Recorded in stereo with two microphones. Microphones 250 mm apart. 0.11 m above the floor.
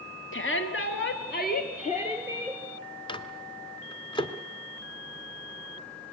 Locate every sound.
0.3 s a shout: 45° left (ahead or behind), 2 m; by 2.6 s 10° left (ahead or behind), 2.5 m
3.1 s a microwave: 20° left (ahead or behind), 1.1 m